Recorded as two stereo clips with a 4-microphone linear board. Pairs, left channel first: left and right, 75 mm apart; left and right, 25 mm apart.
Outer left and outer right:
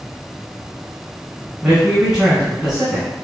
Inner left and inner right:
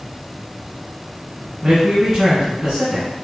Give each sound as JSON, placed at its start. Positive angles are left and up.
{"t": 1.6, "sound": "a man speaking", "side_deg": -10, "distance_m": 2.5}